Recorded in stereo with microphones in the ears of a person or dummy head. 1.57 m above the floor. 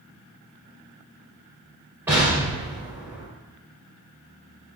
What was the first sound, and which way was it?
An explosion, 10° right (ahead or behind).